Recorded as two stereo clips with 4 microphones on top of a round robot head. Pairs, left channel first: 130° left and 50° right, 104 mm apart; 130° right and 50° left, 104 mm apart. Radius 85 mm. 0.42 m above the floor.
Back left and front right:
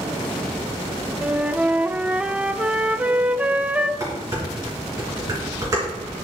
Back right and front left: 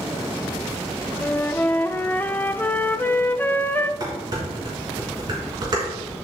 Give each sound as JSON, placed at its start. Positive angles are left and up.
{"t": 1.2, "sound": "a flute", "azimuth_deg": -100, "distance_m": 0.6}
{"t": 4.0, "sound": "dishes clattering", "azimuth_deg": 5, "distance_m": 3.5}